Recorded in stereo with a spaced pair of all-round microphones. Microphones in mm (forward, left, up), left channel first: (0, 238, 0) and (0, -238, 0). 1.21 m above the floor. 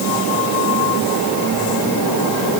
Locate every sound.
Only background noise.